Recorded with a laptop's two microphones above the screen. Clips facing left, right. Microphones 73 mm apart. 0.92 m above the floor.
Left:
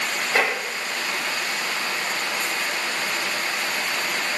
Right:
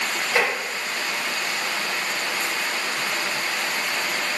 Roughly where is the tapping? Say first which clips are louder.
Even; left.